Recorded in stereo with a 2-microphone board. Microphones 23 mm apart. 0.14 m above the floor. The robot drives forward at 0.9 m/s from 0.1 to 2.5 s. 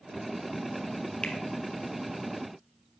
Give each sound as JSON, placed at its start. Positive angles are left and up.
{"t": 1.2, "sound": "a finger snap", "side_deg": 55, "distance_m": 3.0}